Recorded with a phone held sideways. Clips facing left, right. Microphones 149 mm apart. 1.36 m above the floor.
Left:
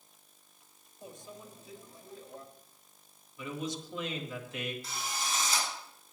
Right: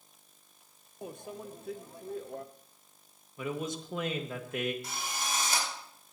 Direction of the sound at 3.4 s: 55° right (ahead or behind).